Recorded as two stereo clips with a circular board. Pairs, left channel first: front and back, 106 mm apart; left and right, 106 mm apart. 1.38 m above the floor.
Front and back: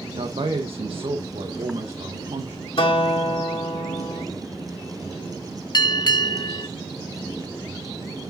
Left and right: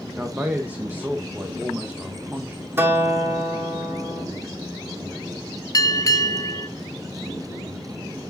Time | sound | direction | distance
0.1 | a man speaking | 160° right | 1.2 m
2.8 | a guitar | 25° right | 3 m
5.7 | a bell | 40° left | 1.1 m